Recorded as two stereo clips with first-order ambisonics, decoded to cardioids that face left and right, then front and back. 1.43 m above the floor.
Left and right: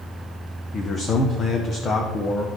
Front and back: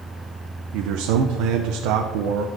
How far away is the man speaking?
About 0.7 m.